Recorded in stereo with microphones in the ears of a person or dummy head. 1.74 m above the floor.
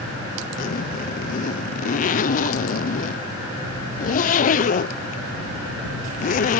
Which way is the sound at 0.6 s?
45° left (ahead or behind).